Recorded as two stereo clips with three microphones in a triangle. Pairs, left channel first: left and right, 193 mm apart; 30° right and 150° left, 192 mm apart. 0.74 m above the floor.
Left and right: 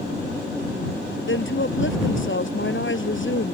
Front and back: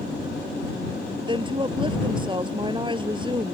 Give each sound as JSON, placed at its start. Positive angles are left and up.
{"t": 1.3, "sound": "a woman speaking", "azimuth_deg": 85}